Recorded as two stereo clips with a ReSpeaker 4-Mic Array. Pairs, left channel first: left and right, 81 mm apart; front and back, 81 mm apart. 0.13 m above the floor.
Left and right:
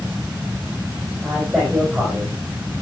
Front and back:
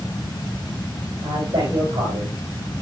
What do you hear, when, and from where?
1.2 s a man speaking: straight behind, 5 m